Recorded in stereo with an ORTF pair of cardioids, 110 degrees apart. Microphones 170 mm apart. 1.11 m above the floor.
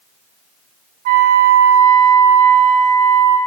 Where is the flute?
60° right, 0.8 m.